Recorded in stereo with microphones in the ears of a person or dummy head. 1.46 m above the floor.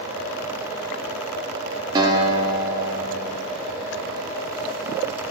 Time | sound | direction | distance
1.9 | a guitar | 25° right (ahead or behind) | 1.8 m